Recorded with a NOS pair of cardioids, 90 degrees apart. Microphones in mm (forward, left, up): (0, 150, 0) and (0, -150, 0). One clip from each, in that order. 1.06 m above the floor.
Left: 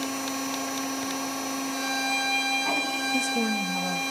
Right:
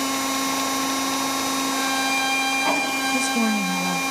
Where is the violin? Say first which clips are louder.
Right 3 dB; 60° right, 3.5 m.